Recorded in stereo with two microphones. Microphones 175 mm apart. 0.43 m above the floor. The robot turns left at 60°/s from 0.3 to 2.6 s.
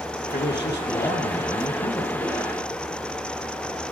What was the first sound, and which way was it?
A man speaking, 120° left.